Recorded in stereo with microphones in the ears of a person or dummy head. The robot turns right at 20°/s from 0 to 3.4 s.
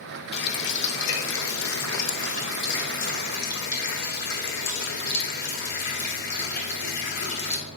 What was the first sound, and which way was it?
A running tap, 70° left.